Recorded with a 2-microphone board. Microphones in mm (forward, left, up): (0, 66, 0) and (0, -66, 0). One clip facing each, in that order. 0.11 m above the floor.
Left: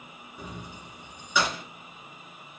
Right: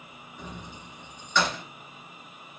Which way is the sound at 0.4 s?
10° left (ahead or behind).